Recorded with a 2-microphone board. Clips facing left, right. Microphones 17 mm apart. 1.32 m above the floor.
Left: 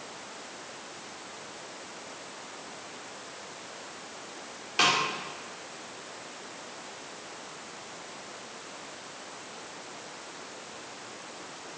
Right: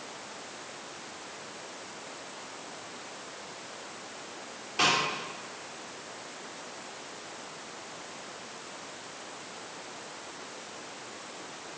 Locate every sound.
4.8 s a snare drum: 30° left (ahead or behind), 3.5 m